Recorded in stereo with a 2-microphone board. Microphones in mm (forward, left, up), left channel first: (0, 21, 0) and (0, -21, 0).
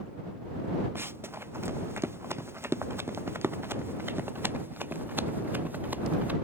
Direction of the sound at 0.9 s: 65° right (ahead or behind).